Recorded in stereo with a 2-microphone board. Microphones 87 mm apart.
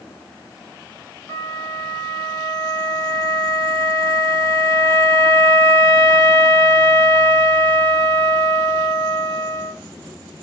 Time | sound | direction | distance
1.3 | a flute | 35° left (ahead or behind) | 3.5 m